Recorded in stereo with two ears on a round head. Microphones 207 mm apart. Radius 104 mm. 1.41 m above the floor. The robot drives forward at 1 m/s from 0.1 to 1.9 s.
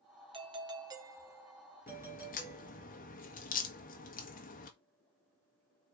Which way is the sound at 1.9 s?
40° left (ahead or behind).